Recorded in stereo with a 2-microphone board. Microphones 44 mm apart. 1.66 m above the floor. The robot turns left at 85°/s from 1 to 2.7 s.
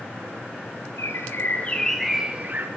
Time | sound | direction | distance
1.0 | a bird | 90° left | 0.7 m